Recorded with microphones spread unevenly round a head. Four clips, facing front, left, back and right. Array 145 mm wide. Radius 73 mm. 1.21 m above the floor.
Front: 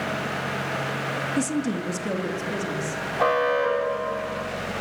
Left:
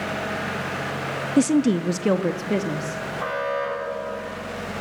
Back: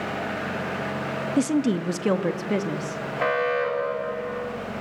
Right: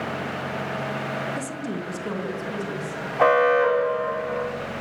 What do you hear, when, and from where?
1.4 s a woman speaking: 105° left, 1.1 m; by 3.0 s 130° left, 2.5 m
3.2 s an alarm: 85° right, 2.5 m